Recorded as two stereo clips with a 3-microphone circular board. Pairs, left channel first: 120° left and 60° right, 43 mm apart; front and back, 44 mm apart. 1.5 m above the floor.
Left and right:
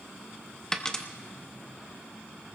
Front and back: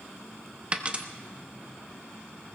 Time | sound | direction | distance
0.7 | a dropped coin | 175° left | 0.9 m